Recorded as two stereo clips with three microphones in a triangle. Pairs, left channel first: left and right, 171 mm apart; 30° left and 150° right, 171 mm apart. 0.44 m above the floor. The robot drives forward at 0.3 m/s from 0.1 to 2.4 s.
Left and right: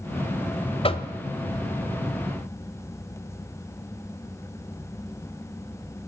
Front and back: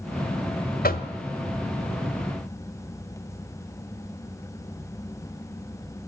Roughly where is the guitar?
No guitar in this recording.